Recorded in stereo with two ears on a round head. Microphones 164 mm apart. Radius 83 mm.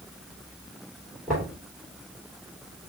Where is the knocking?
Centre (ahead or behind), 3 m.